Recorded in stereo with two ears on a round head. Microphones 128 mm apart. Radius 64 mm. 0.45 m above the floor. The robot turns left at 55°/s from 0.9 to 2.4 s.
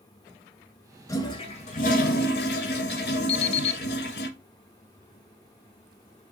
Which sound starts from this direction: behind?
A toilet flushing, at 1.1 s.